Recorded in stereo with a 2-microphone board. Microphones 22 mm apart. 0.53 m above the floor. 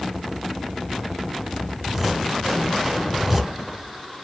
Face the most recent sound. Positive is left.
turn(degrees=-10)  # may be behind; listen again after turning